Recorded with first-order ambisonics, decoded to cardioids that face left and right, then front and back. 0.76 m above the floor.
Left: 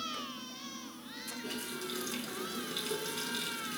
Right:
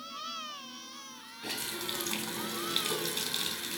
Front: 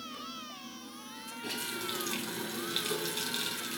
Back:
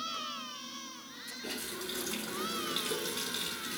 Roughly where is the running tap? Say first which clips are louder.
Right 6 dB, front 4 dB; right.